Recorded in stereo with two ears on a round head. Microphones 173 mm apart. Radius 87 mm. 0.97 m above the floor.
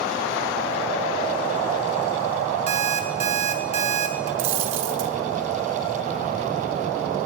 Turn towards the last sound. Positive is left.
turn(degrees=-70)  # may be behind; listen again after turning